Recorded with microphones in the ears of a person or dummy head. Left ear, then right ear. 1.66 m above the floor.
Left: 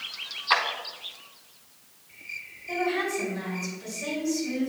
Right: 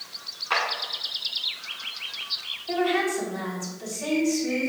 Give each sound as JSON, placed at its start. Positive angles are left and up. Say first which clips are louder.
{"t": 0.5, "sound": "a clap", "louder": "left 2 dB", "side_deg": 30, "distance_m": 1.2}
{"t": 2.7, "sound": "a woman speaking", "louder": "right 3 dB", "side_deg": -50, "distance_m": 3.5}